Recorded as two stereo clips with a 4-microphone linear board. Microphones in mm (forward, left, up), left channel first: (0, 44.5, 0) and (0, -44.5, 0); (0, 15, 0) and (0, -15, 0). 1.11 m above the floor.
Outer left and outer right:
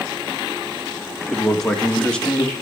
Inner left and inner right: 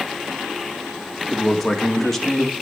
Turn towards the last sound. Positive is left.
turn(degrees=15)  # may be behind; listen again after turning